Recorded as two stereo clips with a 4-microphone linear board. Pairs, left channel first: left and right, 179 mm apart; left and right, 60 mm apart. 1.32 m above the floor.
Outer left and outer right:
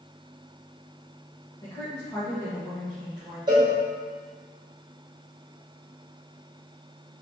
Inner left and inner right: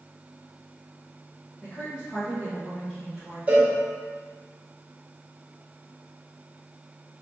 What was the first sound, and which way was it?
A woman speaking, 25° left (ahead or behind).